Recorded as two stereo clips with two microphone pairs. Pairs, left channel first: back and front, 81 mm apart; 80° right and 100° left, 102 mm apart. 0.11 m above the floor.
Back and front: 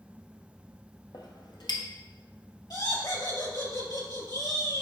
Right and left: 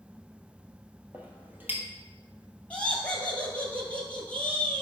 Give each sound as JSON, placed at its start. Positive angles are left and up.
{"t": 1.1, "sound": "a clink", "azimuth_deg": 170, "distance_m": 1.4}
{"t": 2.7, "sound": "laughter", "azimuth_deg": -155, "distance_m": 2.5}